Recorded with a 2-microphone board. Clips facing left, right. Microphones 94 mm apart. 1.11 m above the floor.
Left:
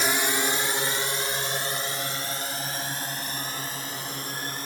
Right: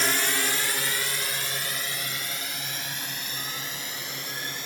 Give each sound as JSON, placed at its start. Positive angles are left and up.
{"t": 0.0, "sound": "a drone", "side_deg": 10}